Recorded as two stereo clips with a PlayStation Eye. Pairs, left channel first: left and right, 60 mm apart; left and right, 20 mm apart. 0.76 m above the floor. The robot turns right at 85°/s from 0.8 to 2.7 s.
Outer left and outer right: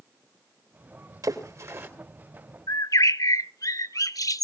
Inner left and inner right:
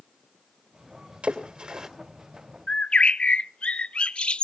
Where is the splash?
80° right, 3 m; by 1.9 s 40° right (ahead or behind), 3 m.